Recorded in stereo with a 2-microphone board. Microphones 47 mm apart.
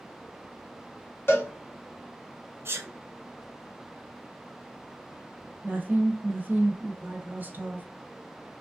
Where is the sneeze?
55° right (ahead or behind), 0.9 m.